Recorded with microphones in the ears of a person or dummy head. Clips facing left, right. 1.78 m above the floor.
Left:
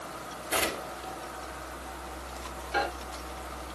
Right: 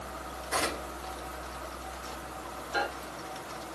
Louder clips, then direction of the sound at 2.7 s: Left 2 dB; 30° left (ahead or behind).